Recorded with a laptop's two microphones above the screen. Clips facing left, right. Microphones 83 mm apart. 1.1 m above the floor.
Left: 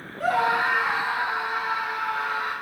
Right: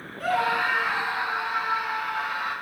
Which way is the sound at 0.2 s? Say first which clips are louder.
Left 2 dB; 25° left (ahead or behind).